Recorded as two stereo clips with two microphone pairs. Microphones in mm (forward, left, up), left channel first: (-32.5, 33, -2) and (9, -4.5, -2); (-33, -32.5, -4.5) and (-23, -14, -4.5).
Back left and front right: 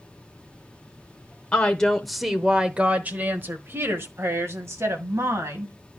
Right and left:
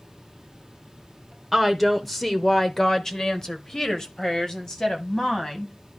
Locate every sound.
1.5 s a woman speaking: 155° left, 0.8 m; by 5.7 s 60° right, 2 m